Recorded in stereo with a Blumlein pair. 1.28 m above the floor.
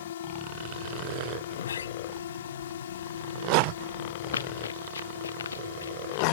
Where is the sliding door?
65° left.